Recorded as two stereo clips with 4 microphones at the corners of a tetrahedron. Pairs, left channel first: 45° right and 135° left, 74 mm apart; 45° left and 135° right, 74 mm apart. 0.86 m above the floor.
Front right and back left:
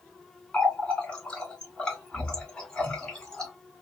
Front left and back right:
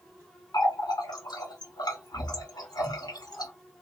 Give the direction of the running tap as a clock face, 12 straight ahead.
11 o'clock.